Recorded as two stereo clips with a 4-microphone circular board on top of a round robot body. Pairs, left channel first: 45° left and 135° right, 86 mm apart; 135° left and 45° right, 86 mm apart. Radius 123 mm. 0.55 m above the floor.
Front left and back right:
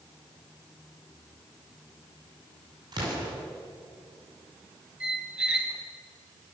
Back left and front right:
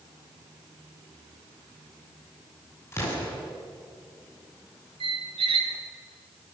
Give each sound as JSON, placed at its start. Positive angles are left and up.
{"t": 2.9, "sound": "an explosion", "azimuth_deg": -165, "distance_m": 7.0}
{"t": 5.0, "sound": "a squeak", "azimuth_deg": -55, "distance_m": 2.5}